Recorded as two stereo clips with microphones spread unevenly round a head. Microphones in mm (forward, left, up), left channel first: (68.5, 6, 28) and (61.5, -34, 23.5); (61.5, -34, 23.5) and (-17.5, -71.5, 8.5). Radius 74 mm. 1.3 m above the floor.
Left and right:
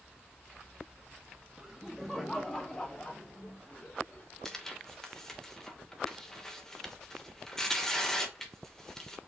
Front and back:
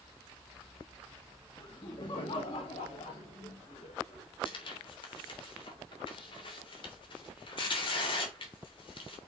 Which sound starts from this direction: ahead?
Tearing paper, at 4.5 s.